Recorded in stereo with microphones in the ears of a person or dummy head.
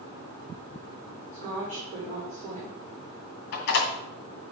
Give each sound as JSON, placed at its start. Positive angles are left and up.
{"t": 1.3, "sound": "a woman speaking", "side_deg": -40, "distance_m": 4.0}
{"t": 3.5, "sound": "a door slam", "side_deg": 50, "distance_m": 2.0}